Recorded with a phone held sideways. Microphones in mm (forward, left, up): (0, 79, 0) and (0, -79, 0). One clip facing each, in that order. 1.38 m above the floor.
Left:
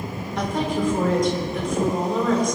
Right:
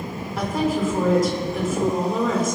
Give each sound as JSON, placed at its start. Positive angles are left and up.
{"t": 0.4, "sound": "a woman speaking", "side_deg": -5, "distance_m": 4.5}